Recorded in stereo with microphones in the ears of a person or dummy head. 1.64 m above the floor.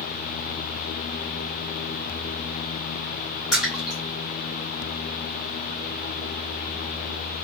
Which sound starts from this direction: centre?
A splash, at 3.5 s.